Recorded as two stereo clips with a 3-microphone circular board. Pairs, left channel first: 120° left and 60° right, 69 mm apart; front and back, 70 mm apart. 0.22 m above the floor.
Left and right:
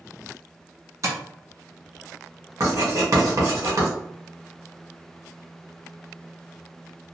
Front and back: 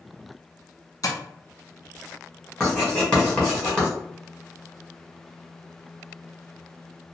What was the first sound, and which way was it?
Tapping, 25° right.